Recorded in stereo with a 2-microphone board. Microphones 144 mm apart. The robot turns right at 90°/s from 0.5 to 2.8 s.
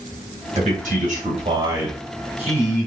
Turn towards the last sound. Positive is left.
turn(degrees=75)